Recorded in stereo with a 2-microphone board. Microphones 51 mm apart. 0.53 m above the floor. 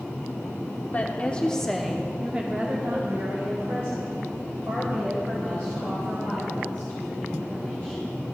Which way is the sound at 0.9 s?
30° left (ahead or behind).